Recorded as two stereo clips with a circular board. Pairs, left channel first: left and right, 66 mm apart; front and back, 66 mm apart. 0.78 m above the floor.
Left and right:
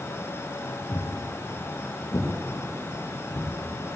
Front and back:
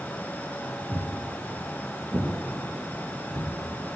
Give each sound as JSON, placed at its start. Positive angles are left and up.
{"t": 0.9, "sound": "footsteps", "azimuth_deg": 135, "distance_m": 2.0}